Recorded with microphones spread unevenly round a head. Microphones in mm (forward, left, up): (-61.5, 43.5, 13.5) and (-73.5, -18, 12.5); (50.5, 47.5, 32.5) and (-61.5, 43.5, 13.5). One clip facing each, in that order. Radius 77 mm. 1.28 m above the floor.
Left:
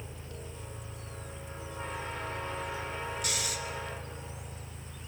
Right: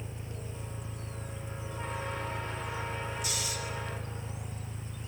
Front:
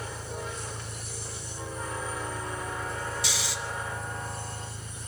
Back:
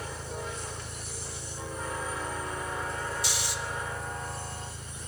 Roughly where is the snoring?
Ahead.